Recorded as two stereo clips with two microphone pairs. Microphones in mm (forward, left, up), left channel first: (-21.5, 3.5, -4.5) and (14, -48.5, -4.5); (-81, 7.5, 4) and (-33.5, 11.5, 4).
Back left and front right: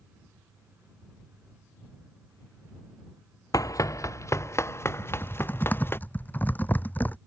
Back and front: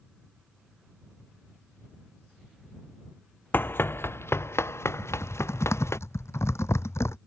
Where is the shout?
I don't hear a shout.